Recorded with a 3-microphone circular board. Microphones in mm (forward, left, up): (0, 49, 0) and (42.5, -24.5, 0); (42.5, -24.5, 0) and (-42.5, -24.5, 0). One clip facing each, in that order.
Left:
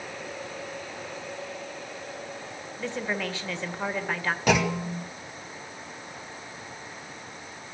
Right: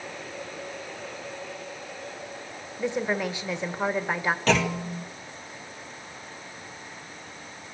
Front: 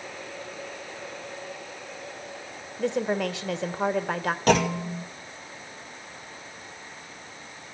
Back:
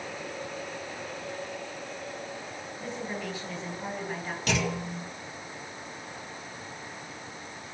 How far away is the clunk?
About 2.0 m.